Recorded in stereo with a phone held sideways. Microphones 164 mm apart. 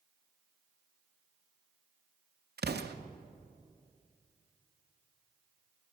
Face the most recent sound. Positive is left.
turn(degrees=-80)